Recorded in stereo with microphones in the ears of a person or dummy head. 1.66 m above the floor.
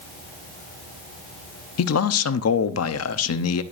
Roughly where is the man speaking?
Left.